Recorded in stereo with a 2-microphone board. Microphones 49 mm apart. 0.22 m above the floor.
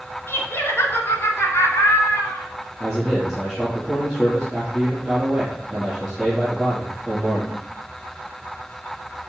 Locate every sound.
0.3 s laughter: 55° left (ahead or behind), 2 m; by 2.5 s 65° left (ahead or behind), 3 m
2.8 s a man speaking: centre (ahead or behind), 4.5 m